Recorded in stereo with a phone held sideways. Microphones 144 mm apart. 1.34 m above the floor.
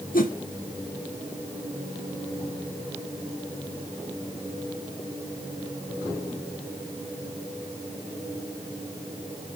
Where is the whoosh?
75° left (ahead or behind), 1.0 m.